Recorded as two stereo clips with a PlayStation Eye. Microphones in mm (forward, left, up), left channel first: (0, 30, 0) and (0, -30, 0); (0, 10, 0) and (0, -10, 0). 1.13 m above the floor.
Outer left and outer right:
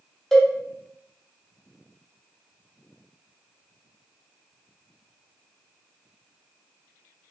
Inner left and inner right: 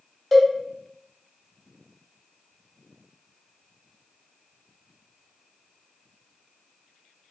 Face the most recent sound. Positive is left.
turn(degrees=5)  # may be behind; listen again after turning